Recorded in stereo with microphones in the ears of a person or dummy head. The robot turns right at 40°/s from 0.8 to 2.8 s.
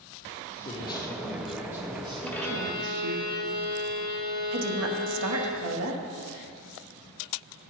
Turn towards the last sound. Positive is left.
turn(degrees=-85)